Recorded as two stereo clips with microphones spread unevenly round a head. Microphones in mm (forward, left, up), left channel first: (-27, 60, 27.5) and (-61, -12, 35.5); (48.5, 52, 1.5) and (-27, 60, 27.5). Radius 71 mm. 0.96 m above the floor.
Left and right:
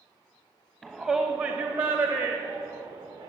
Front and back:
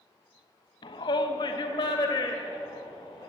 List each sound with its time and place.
0.8 s a shout: 30° right, 1.0 m; by 3.3 s 80° right, 2 m